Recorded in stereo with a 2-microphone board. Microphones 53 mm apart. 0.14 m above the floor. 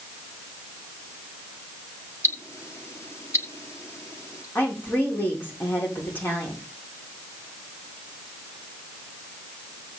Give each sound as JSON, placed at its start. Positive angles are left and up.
{"t": 2.2, "sound": "ticking", "side_deg": 65, "distance_m": 1.4}
{"t": 4.5, "sound": "a woman speaking", "side_deg": 40, "distance_m": 7.5}